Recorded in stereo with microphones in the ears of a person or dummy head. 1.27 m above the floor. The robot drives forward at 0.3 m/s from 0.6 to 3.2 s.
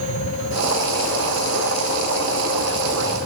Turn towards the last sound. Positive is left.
No sound to turn to.